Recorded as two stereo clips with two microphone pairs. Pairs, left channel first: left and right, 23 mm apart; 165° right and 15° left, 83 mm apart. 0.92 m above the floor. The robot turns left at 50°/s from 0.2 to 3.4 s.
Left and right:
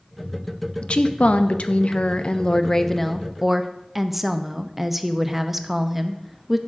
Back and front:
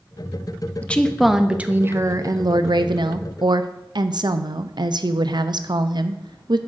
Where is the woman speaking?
125° left, 0.6 m; by 6.6 s 5° right, 0.6 m.